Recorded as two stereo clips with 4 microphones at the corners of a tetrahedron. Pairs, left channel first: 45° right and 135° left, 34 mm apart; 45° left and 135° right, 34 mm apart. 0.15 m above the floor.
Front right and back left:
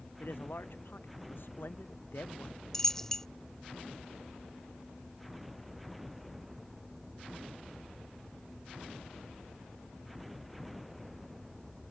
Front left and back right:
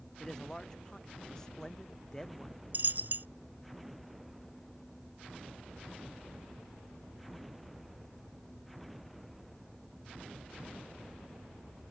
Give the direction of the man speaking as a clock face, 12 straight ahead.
1 o'clock.